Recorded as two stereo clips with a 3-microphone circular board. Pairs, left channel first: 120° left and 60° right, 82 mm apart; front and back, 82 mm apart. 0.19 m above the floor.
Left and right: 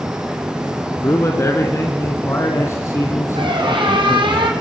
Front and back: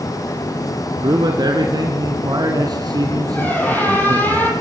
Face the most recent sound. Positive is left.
turn(degrees=-70)